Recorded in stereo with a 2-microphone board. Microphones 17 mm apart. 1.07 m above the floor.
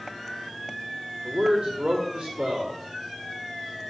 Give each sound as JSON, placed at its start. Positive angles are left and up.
{"t": 1.2, "sound": "a man speaking", "side_deg": -80, "distance_m": 2.0}